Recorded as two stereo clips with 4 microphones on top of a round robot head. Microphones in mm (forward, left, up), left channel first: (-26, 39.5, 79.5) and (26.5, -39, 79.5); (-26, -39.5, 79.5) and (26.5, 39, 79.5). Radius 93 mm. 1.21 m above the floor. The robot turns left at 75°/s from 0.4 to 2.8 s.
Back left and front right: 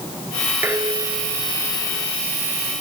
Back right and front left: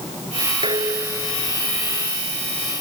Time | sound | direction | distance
0.6 | dishes clattering | 15° left | ?